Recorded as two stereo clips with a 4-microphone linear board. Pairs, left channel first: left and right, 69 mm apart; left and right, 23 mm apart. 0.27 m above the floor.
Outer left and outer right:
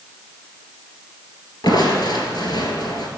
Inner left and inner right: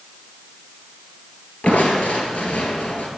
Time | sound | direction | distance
1.6 | crushing | 80° left | 1.7 m